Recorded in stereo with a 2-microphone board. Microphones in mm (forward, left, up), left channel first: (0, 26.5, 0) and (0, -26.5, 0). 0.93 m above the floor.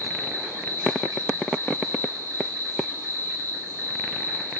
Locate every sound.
0.0 s an insect: 85° right, 1.6 m